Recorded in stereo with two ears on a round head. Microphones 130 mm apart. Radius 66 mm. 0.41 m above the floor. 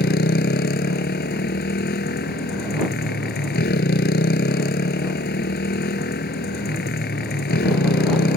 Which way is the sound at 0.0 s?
85° left.